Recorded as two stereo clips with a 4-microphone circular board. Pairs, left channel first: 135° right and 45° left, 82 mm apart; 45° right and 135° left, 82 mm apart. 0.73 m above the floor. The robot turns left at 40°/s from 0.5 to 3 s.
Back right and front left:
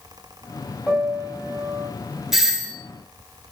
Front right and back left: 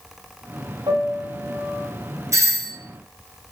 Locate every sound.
0.9 s a piano: 145° left, 2.0 m; by 1.9 s 105° left, 2.0 m
2.3 s a doorbell: 125° left, 1.0 m; by 2.7 s 110° left, 1.0 m